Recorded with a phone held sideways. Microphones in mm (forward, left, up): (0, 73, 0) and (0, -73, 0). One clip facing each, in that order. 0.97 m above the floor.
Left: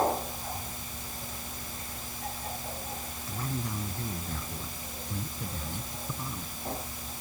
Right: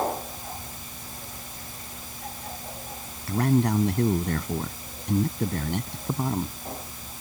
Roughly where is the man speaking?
Right.